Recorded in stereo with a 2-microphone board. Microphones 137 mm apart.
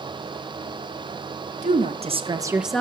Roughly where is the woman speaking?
Right.